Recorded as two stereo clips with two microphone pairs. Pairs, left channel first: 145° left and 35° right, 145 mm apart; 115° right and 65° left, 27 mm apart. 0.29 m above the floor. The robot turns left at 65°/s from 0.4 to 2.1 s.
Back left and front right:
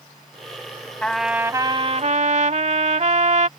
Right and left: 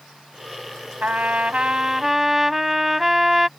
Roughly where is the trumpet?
Ahead left.